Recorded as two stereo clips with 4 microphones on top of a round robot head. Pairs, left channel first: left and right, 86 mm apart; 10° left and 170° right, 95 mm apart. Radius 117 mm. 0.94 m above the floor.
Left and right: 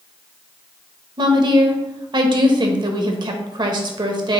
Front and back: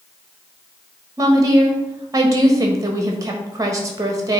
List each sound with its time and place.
1.2 s a woman speaking: 120° right, 1.2 m